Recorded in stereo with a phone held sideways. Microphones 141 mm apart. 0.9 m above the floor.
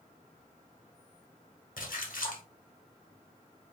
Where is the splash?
75° left (ahead or behind), 1.2 m.